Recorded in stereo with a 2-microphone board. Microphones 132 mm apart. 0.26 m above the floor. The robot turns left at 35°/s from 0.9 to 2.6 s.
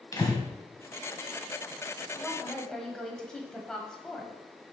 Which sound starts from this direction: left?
Breathing, at 0.1 s.